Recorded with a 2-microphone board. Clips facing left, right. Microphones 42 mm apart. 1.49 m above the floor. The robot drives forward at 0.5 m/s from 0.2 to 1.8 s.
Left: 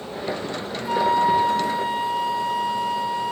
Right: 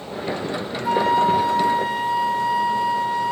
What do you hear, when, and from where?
0.8 s a flute: 60° right (ahead or behind), 0.7 m; by 3.3 s 55° right (ahead or behind), 0.8 m